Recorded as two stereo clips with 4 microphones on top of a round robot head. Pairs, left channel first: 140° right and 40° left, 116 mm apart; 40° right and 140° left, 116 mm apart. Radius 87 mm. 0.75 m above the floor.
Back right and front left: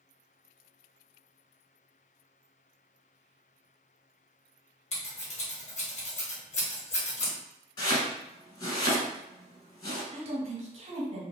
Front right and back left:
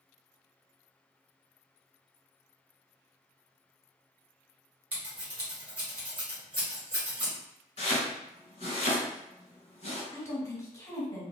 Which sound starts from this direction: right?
Chopping, at 7.8 s.